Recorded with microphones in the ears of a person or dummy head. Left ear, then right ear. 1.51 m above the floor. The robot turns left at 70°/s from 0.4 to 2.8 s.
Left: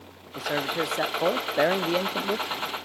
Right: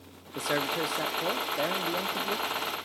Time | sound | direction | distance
0.3 | a man speaking | 165° right | 0.6 m